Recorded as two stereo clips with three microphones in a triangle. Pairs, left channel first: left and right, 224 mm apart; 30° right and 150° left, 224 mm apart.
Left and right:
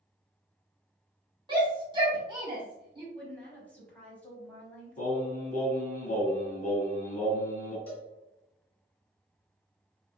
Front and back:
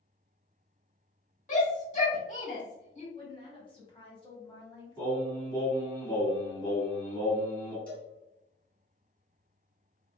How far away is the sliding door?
No sliding door in this recording.